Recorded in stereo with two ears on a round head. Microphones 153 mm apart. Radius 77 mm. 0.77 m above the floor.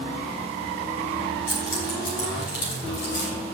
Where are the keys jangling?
55° left (ahead or behind), 5 m; by 3.3 s 60° left (ahead or behind), 4 m.